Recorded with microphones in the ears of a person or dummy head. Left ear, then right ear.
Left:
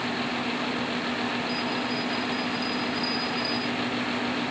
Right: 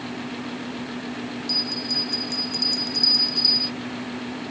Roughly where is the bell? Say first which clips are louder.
Right 4 dB; right.